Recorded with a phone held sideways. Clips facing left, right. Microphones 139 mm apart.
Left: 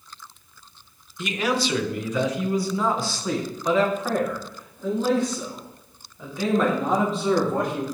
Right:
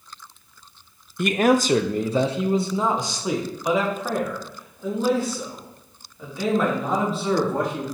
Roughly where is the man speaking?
Right.